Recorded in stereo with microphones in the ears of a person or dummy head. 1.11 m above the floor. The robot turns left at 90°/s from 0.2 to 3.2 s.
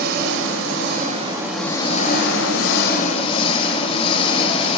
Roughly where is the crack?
I don't hear a crack.